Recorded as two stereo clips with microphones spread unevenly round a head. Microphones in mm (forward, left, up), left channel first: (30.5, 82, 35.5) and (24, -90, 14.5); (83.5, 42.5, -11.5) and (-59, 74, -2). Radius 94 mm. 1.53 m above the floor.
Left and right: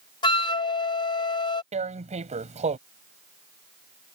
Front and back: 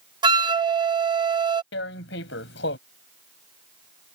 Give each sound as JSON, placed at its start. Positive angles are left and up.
{"t": 0.2, "sound": "a flute", "azimuth_deg": 130}
{"t": 1.7, "sound": "tearing paper", "azimuth_deg": -35}